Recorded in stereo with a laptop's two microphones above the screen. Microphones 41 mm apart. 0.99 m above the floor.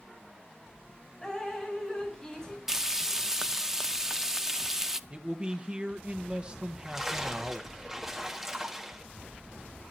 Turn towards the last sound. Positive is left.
turn(degrees=-10)  # may be behind; listen again after turning